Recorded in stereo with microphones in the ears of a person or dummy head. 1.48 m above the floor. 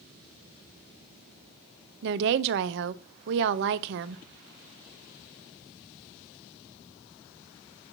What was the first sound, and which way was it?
A woman speaking, 65° right (ahead or behind).